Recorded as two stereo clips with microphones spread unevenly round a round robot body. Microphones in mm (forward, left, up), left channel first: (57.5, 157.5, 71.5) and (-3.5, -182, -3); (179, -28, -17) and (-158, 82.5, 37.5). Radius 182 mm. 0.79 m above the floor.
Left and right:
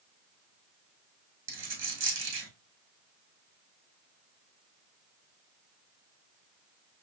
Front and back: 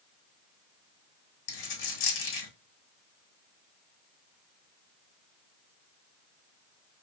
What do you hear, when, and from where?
1.5 s a dropped coin: 40° right, 4 m